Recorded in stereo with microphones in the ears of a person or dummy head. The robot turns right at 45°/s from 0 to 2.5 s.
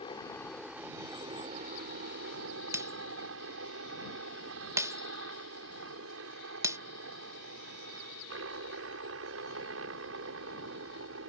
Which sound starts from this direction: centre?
Breaking glass, at 2.7 s.